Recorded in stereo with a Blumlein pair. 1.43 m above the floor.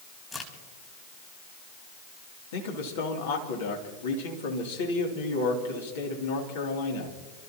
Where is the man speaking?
55° left, 3 m.